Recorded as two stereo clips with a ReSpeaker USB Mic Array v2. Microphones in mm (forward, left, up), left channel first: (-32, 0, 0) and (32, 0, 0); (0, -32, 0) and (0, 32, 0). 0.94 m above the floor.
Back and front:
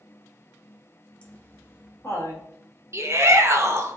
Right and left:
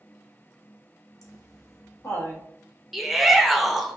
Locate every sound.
1.2 s laughter: 110° right, 0.7 m; by 2.4 s 135° right, 1.3 m
2.9 s a shout: straight ahead, 0.5 m